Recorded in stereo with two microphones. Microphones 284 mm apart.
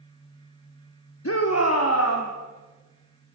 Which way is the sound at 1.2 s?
55° left (ahead or behind).